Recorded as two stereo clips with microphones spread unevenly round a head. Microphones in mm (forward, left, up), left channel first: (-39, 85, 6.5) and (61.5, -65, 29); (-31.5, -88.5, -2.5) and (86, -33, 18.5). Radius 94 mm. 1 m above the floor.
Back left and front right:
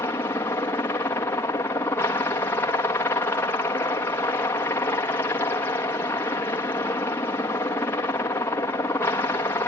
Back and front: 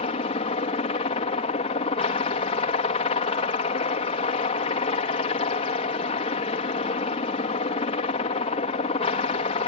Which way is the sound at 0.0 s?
165° right.